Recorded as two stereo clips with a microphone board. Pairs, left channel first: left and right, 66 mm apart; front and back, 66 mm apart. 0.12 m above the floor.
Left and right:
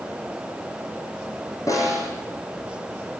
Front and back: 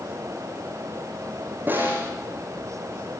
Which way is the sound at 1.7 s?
120° left.